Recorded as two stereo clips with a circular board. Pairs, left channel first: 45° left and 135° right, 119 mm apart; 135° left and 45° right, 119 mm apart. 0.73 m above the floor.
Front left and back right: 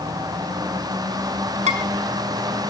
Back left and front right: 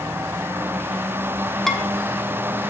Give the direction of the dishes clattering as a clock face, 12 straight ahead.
5 o'clock.